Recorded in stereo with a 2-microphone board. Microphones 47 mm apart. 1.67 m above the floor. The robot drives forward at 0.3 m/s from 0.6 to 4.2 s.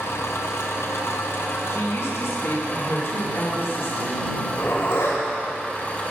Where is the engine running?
75° left (ahead or behind), 0.9 m; by 6.1 s 40° left (ahead or behind), 1.4 m.